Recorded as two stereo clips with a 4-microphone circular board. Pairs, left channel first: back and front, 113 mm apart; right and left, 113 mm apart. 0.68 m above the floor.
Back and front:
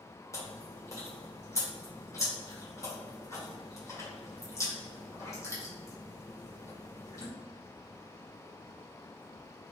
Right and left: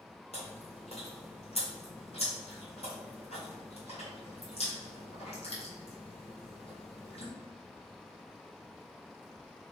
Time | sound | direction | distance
0.3 | chewing | 115° right | 1.7 m